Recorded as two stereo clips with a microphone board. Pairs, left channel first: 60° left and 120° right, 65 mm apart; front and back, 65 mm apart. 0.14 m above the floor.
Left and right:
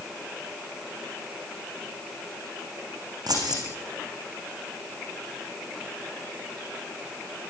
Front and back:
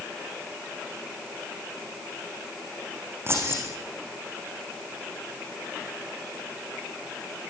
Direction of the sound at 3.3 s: 130° right.